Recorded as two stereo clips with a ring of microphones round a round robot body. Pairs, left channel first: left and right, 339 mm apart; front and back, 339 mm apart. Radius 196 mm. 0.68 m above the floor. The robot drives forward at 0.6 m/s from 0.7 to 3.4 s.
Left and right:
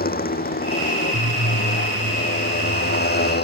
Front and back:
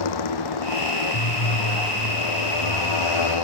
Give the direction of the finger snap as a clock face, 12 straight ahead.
No finger snap in this recording.